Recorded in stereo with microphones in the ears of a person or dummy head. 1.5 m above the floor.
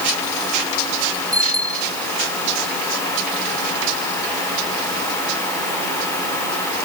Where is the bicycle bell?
20° right (ahead or behind).